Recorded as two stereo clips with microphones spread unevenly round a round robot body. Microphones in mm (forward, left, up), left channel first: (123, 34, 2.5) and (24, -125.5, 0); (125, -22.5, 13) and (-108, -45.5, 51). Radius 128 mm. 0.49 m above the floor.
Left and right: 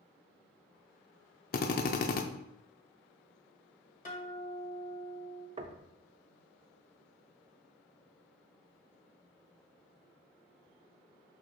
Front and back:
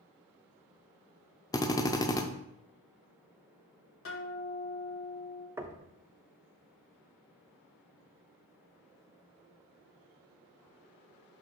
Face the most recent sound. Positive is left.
turn(degrees=-90)